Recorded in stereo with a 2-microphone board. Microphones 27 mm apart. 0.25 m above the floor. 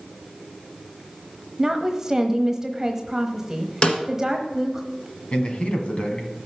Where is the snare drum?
45° left (ahead or behind), 1.6 m.